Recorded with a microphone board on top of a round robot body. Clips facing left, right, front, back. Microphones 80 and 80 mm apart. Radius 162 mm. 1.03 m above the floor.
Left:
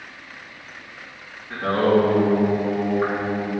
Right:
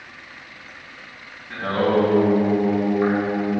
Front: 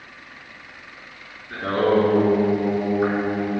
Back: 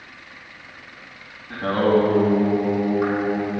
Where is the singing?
Straight behind, 4 m.